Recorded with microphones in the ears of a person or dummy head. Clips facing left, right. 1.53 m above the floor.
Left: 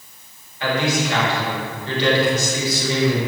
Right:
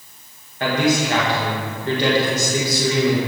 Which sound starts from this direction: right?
A man speaking, at 0.6 s.